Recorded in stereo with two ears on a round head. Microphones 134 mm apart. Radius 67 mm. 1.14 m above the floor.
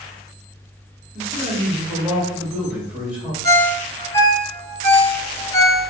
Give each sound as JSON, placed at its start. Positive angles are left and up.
{"t": 1.1, "sound": "a man speaking", "side_deg": -10, "distance_m": 2.0}
{"t": 3.4, "sound": "a ringtone", "side_deg": 20, "distance_m": 1.6}